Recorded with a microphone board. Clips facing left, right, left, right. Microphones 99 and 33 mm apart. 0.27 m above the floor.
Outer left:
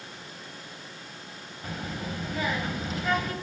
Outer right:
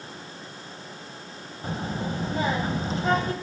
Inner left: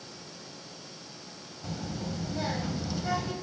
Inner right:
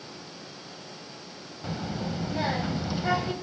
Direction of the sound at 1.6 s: 35° right (ahead or behind).